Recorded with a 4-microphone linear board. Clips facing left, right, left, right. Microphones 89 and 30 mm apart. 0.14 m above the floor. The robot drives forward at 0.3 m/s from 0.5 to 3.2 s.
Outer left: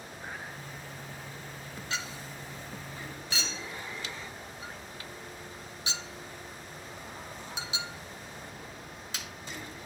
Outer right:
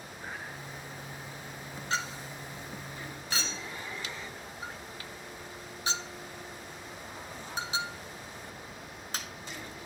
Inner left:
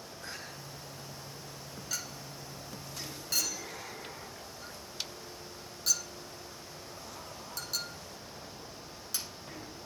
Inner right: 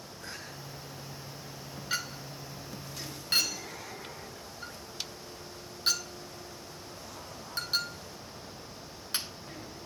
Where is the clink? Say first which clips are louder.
Outer right 4 dB, inner right 6 dB; 40° right (ahead or behind), 0.9 m.